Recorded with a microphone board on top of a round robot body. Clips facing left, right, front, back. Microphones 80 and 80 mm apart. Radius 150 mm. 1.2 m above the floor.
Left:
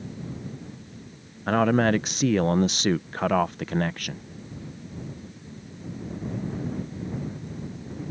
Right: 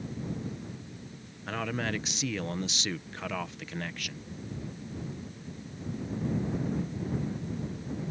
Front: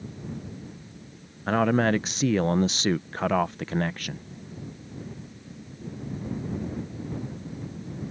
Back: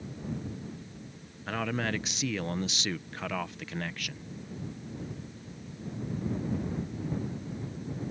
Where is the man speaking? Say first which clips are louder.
Left 12 dB, front 10 dB; 50° left.